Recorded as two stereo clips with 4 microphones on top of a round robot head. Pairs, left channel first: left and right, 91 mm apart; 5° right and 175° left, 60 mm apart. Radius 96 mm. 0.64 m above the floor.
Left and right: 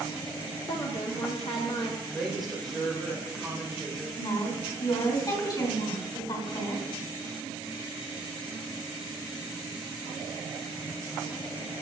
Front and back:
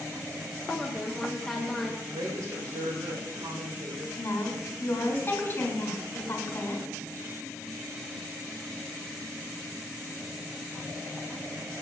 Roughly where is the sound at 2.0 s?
Behind.